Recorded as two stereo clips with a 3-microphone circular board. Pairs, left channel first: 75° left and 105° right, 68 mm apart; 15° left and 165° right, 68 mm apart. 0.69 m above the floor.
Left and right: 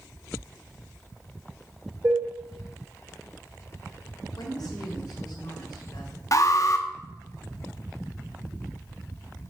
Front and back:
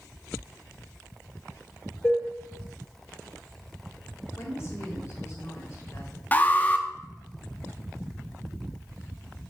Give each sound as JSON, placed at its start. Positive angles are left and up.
{"t": 2.0, "sound": "dishes clattering", "azimuth_deg": -55, "distance_m": 5.5}
{"t": 4.4, "sound": "a woman speaking", "azimuth_deg": 60, "distance_m": 3.0}
{"t": 6.3, "sound": "an alarm", "azimuth_deg": 75, "distance_m": 0.8}